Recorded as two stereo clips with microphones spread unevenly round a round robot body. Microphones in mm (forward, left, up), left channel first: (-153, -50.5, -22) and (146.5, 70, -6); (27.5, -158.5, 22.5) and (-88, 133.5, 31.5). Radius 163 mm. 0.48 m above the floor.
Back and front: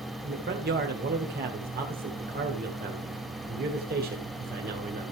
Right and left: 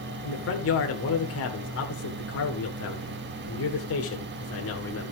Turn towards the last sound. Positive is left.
turn(degrees=-35)